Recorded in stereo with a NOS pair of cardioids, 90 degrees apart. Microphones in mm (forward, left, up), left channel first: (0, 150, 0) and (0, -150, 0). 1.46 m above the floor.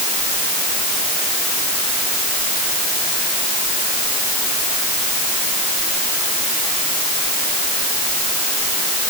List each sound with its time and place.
Only background noise.